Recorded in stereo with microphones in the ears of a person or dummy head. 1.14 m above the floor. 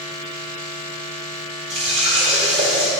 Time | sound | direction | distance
1.7 | a running tap | 35° right (ahead or behind) | 1.4 m